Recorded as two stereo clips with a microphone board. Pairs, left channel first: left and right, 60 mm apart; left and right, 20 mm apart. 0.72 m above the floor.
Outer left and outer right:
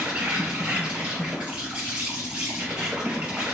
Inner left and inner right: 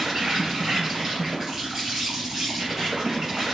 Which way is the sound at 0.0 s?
20° right (ahead or behind).